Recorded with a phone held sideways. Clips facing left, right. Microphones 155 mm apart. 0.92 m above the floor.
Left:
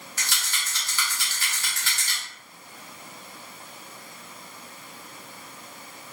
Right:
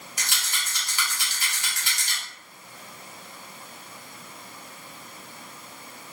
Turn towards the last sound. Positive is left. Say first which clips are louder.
# even
turn(degrees=-15)  # may be behind; listen again after turning